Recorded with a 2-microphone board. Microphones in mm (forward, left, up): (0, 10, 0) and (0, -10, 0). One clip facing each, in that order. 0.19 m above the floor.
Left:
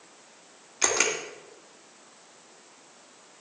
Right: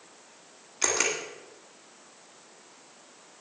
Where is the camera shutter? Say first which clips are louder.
Left 2 dB; 10° left (ahead or behind), 1.8 m.